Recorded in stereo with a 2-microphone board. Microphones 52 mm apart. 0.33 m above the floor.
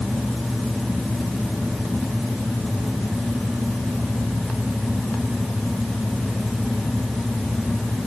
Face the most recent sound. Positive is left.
No sound to turn to.